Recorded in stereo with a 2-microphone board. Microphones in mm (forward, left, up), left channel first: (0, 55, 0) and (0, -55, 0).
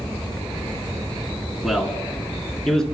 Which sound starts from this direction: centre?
A man speaking, at 1.6 s.